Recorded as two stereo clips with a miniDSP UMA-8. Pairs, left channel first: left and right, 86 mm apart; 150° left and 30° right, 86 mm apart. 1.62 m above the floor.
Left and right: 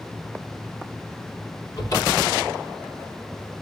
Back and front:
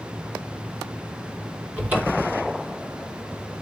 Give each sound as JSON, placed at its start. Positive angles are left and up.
{"t": 1.8, "sound": "a cupboard door", "azimuth_deg": 40, "distance_m": 4.5}